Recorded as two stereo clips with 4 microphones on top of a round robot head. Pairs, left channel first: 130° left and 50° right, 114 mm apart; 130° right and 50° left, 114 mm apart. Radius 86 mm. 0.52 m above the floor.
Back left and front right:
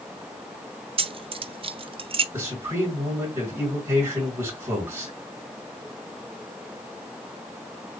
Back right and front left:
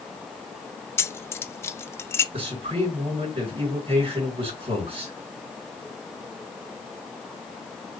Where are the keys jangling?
65° right, 0.6 m.